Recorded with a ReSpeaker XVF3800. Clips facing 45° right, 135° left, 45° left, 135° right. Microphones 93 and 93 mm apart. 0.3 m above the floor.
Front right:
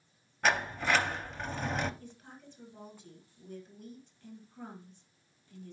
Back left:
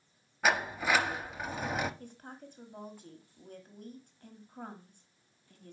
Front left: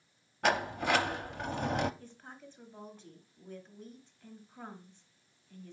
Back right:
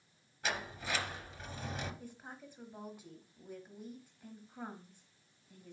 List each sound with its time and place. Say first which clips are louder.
0.4 s a sliding door: even, front left 10 dB; 50° left, 0.6 m
2.0 s a woman speaking: back left 3 dB, back right 1 dB; 150° left, 1.4 m